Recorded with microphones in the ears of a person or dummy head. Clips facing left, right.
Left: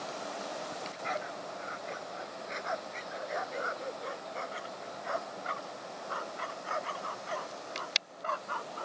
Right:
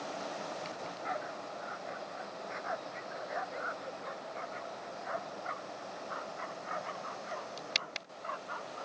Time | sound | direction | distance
0.7 | a dog barking | 50° left (ahead or behind) | ?